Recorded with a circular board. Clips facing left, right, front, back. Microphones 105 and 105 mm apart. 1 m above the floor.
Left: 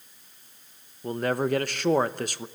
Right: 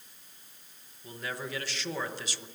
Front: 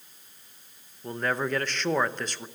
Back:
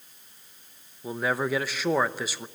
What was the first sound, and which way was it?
A man speaking, 100° left.